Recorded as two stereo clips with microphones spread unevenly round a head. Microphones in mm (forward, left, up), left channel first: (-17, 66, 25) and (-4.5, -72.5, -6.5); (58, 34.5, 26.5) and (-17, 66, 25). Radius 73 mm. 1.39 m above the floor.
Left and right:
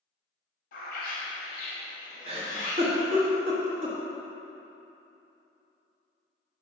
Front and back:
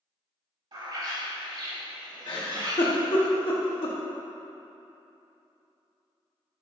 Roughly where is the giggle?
Ahead right.